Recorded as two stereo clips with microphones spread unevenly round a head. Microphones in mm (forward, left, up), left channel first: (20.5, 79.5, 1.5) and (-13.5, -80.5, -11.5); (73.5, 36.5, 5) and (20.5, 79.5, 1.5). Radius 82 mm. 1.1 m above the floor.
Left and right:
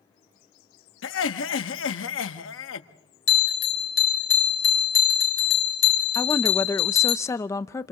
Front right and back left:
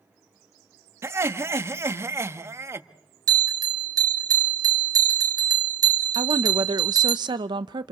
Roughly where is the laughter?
Left.